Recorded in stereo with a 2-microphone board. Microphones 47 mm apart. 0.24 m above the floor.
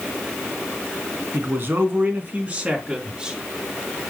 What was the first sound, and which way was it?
A man speaking, 55° right (ahead or behind).